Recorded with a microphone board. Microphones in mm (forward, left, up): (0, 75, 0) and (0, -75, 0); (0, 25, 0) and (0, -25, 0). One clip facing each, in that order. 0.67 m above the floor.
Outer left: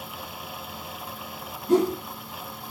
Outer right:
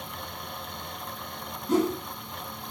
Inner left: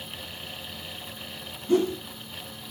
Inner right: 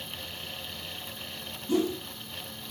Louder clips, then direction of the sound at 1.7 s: Outer left 4 dB, inner left 4 dB; 50° left (ahead or behind).